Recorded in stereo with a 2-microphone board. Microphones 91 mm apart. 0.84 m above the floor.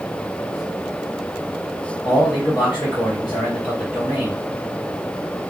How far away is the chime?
No chime in this recording.